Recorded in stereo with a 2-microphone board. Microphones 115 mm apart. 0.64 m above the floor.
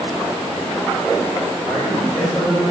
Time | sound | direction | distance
1.6 | a man speaking | 10° left (ahead or behind) | 2.0 m